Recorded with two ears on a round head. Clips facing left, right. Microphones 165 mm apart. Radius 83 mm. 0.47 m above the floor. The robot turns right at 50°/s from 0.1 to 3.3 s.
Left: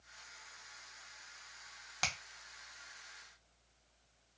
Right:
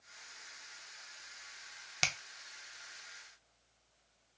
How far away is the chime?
I don't hear a chime.